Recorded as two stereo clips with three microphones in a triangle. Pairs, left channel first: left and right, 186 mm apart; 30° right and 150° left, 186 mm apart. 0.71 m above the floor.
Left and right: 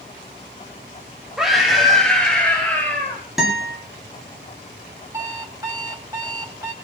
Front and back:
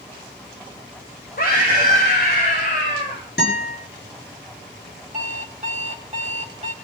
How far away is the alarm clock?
About 2.5 m.